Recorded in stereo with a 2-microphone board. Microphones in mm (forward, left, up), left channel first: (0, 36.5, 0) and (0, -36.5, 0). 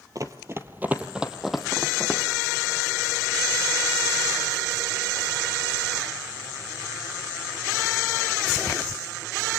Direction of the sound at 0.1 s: 50° right (ahead or behind).